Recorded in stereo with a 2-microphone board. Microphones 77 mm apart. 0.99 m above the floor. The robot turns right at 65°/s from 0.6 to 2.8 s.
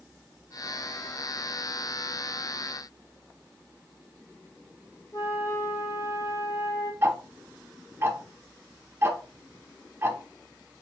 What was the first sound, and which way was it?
A flute, 40° left (ahead or behind).